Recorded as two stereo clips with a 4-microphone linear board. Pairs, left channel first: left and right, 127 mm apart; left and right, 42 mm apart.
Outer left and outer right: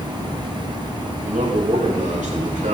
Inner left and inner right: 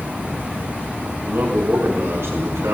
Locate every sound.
1.2 s a man speaking: 85° right, 4.5 m